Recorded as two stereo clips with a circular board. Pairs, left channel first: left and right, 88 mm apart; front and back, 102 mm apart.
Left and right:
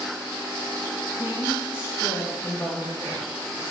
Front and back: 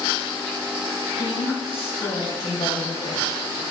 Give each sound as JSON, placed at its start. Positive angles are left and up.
{"t": 1.2, "sound": "a woman speaking", "azimuth_deg": -20, "distance_m": 1.3}